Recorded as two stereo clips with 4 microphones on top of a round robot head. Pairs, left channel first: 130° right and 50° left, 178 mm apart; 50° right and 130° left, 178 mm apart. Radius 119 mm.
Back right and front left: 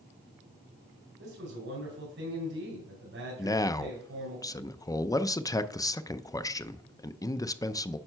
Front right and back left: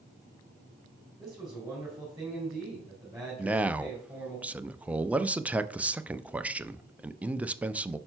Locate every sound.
1.2 s a man speaking: 45° left, 3.5 m
3.4 s a man speaking: 160° right, 0.6 m